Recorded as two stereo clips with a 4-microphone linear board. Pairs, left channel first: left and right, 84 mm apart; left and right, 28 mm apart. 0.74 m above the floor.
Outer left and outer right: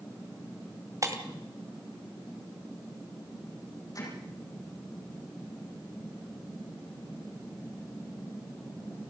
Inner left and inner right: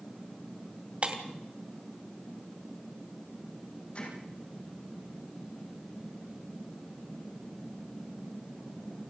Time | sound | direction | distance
1.0 | breaking glass | 40° right (ahead or behind) | 2.5 m
4.0 | hammering | 45° left (ahead or behind) | 7 m